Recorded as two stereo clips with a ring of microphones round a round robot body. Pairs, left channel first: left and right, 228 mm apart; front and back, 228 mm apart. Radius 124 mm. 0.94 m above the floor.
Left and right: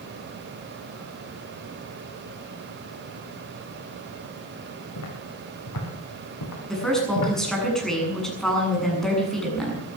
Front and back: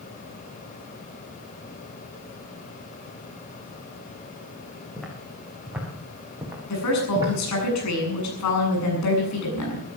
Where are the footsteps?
90° left, 6 m; by 7.3 s 105° left, 7 m.